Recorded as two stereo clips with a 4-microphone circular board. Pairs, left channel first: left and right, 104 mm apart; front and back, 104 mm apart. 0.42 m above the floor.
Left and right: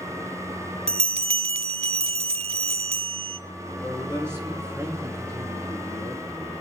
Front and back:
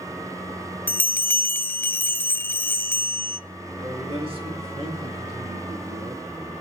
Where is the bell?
70° right, 0.5 m.